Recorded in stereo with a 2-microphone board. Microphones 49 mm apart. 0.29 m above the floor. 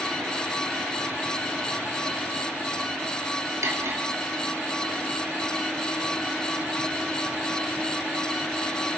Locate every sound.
3.6 s cutlery clinking: 75° right (ahead or behind), 3 m